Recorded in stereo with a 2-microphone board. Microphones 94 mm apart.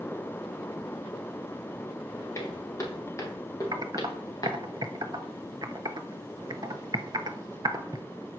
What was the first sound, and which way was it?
Footsteps, 35° left (ahead or behind).